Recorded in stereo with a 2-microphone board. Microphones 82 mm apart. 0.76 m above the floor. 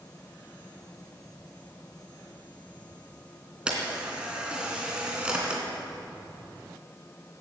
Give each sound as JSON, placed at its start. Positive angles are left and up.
{"t": 3.7, "sound": "a camera shutter", "side_deg": -15, "distance_m": 2.5}